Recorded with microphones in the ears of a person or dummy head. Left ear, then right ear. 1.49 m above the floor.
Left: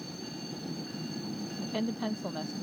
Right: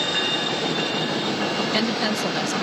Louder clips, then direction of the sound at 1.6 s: Right 9 dB; 70° right (ahead or behind).